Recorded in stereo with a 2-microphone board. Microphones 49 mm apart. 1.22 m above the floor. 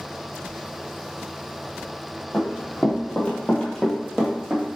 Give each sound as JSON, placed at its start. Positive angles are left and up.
{"t": 2.3, "sound": "running footsteps", "side_deg": 40, "distance_m": 1.8}